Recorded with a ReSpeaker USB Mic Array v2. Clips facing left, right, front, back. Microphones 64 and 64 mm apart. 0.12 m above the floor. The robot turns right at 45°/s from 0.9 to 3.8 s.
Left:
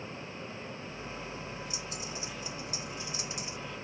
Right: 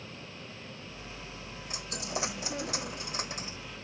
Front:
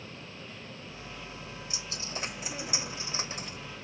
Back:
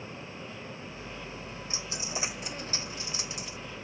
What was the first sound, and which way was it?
A dropped coin, 120° right.